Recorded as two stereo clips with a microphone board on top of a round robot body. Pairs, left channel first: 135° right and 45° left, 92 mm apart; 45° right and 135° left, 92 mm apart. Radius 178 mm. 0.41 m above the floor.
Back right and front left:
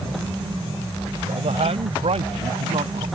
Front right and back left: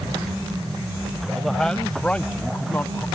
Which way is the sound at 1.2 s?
45° left.